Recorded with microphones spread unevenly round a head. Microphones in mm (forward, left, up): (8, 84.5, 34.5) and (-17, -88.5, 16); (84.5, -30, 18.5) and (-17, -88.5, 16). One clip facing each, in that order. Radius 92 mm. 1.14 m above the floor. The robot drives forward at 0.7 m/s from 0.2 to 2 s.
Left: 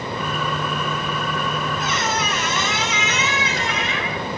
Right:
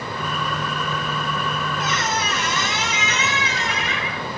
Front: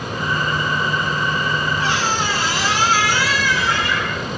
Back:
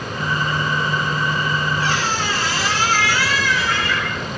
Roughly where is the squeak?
Behind left.